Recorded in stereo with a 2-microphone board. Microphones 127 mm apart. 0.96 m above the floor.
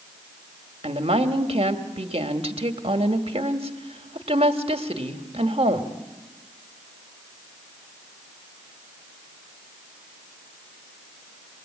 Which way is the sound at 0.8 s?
50° right (ahead or behind).